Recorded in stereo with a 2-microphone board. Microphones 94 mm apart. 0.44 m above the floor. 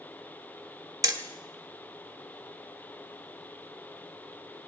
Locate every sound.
1.0 s hammering: 40° right (ahead or behind), 0.9 m